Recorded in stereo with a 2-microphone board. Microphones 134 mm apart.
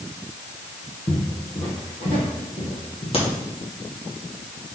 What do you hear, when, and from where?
1.1 s footsteps: 45° left (ahead or behind), 2.5 m
3.1 s a crack: 45° left (ahead or behind), 2 m